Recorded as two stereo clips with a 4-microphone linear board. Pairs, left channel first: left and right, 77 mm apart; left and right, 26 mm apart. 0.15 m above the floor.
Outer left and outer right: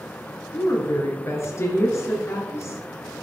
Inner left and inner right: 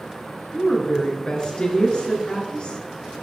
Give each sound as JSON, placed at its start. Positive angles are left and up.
{"t": 0.5, "sound": "a woman speaking", "side_deg": 40, "distance_m": 2.5}